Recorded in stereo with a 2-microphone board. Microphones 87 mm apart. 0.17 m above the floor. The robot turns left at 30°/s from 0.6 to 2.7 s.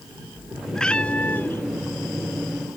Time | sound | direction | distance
0.8 | a cat meowing | 5° left (ahead or behind) | ?